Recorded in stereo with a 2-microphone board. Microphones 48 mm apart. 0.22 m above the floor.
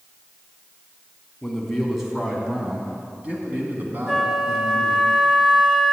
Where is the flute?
10° right (ahead or behind), 0.6 m.